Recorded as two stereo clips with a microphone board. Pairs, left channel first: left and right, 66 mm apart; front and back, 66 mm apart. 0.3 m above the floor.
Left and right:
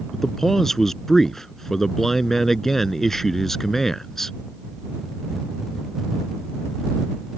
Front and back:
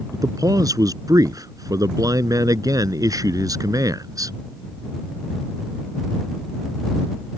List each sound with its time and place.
0.1 s a man speaking: 175° left